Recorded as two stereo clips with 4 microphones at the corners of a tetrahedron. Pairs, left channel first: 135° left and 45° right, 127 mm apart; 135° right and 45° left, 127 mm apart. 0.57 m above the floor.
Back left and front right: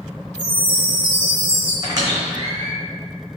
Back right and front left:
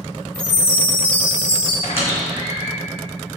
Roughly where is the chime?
Ahead right.